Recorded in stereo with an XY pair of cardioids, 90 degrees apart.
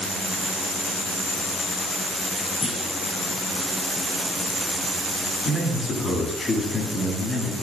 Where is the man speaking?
40° left, 9 m.